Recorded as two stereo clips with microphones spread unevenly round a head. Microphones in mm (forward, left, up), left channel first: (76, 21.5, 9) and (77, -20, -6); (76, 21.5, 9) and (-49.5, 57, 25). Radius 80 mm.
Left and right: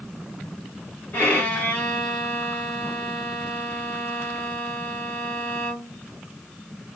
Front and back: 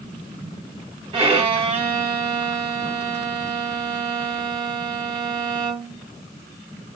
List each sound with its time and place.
1.1 s a violin: 130° left, 1.4 m